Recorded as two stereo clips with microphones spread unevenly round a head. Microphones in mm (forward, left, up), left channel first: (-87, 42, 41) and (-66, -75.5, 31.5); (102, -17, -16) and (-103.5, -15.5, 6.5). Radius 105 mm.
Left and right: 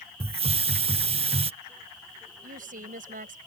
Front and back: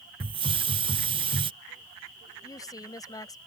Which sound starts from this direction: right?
A woman speaking, at 2.4 s.